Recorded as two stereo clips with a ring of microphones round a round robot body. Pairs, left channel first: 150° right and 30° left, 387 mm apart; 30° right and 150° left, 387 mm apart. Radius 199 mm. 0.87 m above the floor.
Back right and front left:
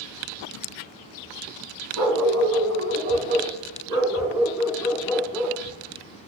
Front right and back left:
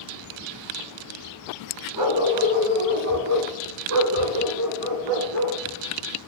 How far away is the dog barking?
About 1.7 m.